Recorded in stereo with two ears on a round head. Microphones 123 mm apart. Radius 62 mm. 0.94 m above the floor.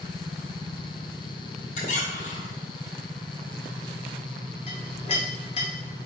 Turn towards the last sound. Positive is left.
turn(degrees=40)  # may be behind; listen again after turning